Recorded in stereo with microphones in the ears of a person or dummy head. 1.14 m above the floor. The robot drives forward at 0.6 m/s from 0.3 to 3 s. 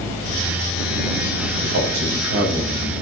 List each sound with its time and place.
1.6 s a man speaking: 65° right (ahead or behind), 2.5 m; by 2.9 s 50° right (ahead or behind), 3 m